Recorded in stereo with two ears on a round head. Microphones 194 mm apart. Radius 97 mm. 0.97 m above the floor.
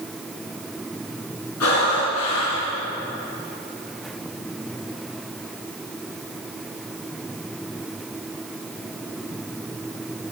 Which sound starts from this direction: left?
Breathing, at 1.6 s.